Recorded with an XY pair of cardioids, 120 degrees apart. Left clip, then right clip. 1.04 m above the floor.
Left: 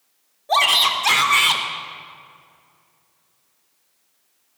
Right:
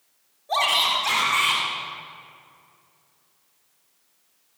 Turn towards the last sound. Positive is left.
turn(degrees=50)